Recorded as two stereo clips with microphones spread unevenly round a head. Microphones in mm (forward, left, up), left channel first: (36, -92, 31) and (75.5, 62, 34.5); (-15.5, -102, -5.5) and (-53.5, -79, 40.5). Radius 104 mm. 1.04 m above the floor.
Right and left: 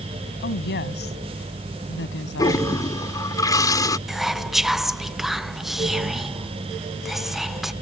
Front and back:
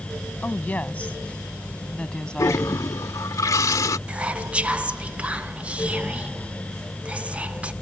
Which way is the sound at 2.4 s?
35° right.